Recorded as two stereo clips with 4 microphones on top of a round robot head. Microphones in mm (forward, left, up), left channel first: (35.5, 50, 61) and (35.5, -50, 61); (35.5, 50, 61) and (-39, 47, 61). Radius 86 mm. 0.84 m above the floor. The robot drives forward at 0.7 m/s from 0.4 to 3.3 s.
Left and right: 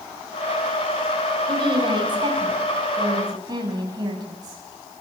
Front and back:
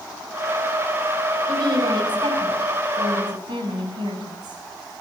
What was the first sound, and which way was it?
A woman speaking, 140° right.